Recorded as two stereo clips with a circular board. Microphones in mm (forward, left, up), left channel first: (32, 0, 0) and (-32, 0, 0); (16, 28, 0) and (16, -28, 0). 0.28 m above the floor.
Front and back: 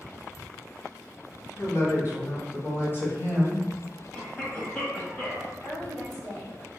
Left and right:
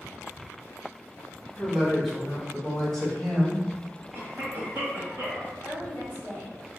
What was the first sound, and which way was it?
A woman speaking, 15° right.